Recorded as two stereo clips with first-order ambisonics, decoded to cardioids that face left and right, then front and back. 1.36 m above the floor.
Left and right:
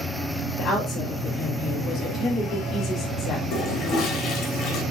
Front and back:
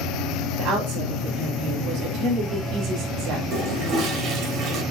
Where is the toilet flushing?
130° left, 2.5 m.